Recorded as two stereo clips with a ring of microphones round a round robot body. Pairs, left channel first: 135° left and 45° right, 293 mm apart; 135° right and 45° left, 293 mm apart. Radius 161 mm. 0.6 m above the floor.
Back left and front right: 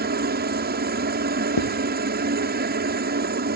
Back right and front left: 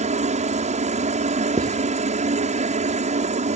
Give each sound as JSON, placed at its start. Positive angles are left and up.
{"t": 0.0, "sound": "a helicopter", "azimuth_deg": -10}
{"t": 1.6, "sound": "writing", "azimuth_deg": 120}